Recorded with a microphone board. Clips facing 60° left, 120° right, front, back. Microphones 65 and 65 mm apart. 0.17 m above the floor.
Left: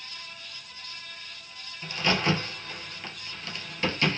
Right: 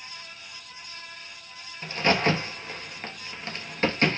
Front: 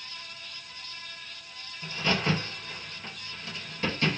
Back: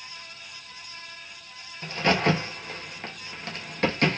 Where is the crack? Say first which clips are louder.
Right 3 dB, back 5 dB; 165° right, 1.2 m.